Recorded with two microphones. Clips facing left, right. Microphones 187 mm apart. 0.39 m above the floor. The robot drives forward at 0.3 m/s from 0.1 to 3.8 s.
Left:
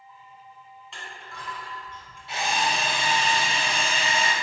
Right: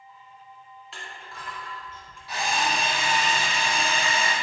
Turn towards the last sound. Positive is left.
turn(degrees=30)  # may be behind; listen again after turning